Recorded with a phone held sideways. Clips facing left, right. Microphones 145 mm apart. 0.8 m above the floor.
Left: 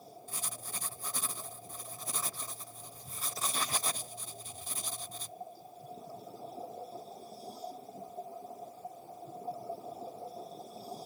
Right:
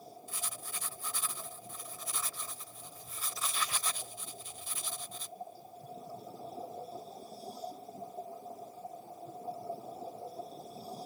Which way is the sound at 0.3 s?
40° left (ahead or behind).